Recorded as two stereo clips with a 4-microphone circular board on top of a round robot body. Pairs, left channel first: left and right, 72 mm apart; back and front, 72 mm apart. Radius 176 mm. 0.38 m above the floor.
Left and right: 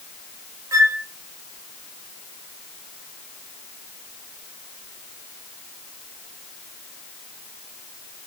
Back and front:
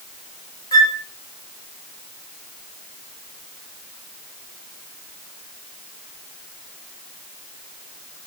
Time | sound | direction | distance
0.7 | a flute | 140° right | 0.5 m